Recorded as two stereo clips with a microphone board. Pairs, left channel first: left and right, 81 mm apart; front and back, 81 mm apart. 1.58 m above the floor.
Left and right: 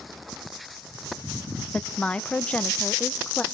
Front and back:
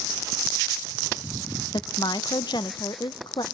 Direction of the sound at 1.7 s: 15° left.